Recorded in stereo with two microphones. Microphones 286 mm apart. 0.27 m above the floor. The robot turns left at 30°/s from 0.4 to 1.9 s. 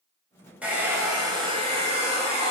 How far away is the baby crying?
I don't hear a baby crying.